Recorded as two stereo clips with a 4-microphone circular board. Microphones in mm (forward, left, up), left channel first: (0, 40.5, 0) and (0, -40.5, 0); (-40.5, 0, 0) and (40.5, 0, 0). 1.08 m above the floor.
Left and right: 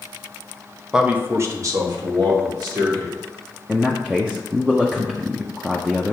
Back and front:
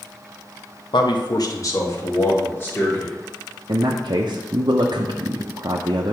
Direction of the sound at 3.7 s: 10° right.